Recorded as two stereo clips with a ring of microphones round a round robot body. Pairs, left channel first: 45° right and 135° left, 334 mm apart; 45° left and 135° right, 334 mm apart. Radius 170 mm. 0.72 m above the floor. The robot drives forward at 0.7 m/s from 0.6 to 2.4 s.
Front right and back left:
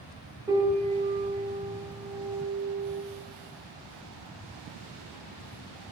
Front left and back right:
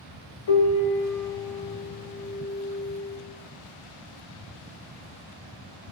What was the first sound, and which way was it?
A piano, 55° left.